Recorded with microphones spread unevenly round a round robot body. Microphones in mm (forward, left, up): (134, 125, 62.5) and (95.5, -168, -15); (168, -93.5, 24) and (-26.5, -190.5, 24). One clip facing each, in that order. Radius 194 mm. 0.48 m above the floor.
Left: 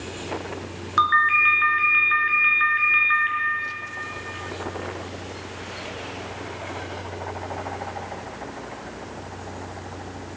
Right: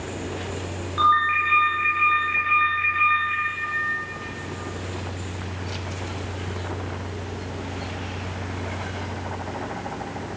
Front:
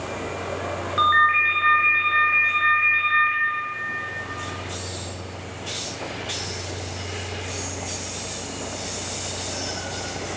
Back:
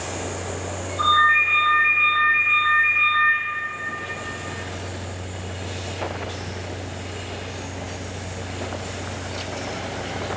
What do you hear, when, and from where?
1.0 s a ringtone: 75° left, 3.5 m